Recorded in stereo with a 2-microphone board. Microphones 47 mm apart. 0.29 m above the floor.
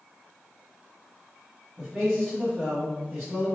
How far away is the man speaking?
About 2.0 m.